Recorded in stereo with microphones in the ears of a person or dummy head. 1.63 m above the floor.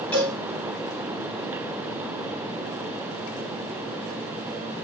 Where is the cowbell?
10° left (ahead or behind), 3.5 m.